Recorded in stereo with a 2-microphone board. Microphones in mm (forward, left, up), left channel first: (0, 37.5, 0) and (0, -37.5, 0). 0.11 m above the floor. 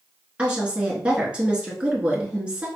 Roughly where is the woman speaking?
Centre.